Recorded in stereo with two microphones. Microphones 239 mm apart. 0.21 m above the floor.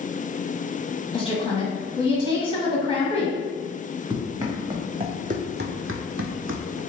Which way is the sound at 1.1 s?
25° left (ahead or behind).